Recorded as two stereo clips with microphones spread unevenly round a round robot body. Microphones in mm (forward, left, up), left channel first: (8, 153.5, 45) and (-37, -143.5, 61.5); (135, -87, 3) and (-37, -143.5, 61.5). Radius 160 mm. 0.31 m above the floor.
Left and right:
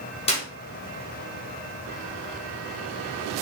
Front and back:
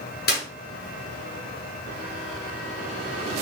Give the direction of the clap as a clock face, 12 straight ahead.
12 o'clock.